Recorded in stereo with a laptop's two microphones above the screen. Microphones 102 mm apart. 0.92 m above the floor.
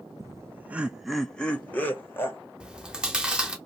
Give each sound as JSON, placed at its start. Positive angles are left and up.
{"t": 0.2, "sound": "laughter", "side_deg": -35, "distance_m": 0.6}
{"t": 2.6, "sound": "chewing", "side_deg": -10, "distance_m": 0.7}